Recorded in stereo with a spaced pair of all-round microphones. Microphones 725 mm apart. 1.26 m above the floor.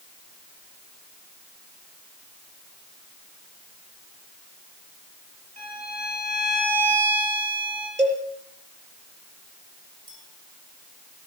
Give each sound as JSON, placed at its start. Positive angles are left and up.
{"t": 5.6, "sound": "a violin", "side_deg": -20, "distance_m": 9.5}
{"t": 8.0, "sound": "a cowbell", "side_deg": -65, "distance_m": 5.5}
{"t": 10.1, "sound": "a clink", "side_deg": -50, "distance_m": 9.0}